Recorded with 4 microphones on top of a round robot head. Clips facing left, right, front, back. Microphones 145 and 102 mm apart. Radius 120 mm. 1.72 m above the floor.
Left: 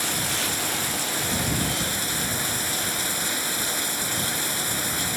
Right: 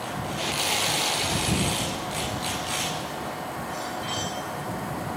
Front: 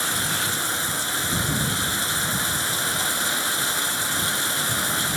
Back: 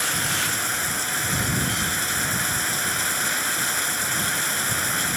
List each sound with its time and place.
0.0 s running water: 75° left